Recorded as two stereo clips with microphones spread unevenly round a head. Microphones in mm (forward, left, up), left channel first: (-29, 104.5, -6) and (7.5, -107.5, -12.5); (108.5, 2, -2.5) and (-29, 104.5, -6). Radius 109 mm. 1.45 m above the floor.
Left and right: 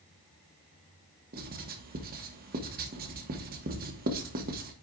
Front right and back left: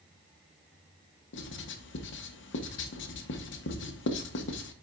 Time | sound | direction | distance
1.3 | writing | 25° right | 1.1 m